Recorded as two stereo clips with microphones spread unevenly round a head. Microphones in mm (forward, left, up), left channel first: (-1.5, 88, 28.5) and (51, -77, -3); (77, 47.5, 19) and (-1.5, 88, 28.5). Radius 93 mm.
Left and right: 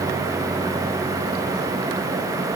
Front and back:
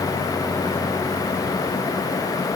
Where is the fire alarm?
No fire alarm in this recording.